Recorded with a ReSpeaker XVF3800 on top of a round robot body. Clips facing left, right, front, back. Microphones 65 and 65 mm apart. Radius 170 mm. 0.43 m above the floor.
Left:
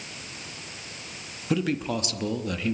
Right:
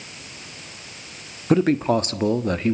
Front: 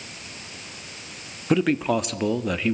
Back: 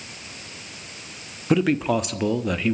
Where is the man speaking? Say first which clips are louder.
Right 8 dB, back 1 dB; 90° right, 1.5 m.